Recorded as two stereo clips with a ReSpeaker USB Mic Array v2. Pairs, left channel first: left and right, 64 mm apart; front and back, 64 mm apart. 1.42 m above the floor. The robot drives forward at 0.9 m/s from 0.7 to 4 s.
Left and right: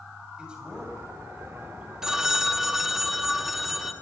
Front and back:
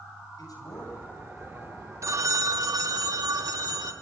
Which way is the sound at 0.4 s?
15° right.